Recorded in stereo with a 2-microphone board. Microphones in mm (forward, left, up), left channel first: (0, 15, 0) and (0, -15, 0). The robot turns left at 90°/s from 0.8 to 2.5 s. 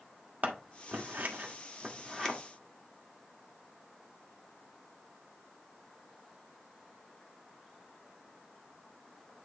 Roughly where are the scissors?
Right.